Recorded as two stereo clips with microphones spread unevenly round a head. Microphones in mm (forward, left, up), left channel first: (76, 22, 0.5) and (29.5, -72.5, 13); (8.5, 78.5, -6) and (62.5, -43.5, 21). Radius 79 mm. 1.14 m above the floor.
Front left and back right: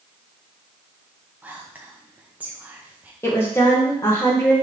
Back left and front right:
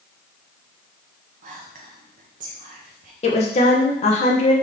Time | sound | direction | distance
1.4 | whispering | 40° right | 0.6 m
3.2 | a woman speaking | 130° left | 0.9 m